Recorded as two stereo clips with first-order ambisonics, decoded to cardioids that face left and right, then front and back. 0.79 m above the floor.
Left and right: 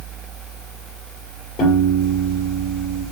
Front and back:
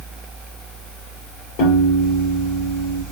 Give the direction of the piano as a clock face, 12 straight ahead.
11 o'clock.